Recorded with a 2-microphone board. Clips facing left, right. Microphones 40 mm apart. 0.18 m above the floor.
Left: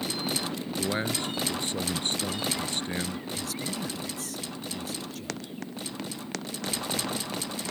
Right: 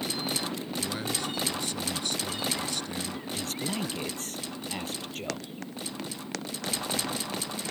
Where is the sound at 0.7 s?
35° left (ahead or behind).